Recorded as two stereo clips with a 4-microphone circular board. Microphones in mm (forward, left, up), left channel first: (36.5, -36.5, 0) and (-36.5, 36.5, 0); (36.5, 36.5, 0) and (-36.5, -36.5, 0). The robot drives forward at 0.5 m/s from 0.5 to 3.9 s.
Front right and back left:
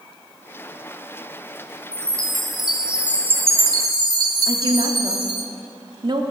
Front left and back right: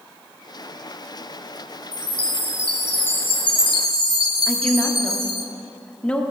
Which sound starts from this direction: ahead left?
A chime, at 1.9 s.